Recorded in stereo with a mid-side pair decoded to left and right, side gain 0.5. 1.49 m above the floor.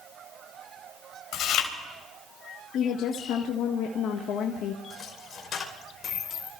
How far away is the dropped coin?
About 3.5 m.